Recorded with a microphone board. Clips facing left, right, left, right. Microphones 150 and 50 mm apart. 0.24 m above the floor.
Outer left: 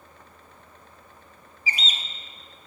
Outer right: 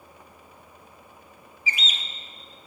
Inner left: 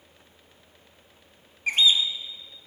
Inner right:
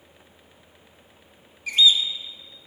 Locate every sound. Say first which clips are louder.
1.7 s a bird: outer left 1 dB, inner right 2 dB; 35° left (ahead or behind), 0.7 m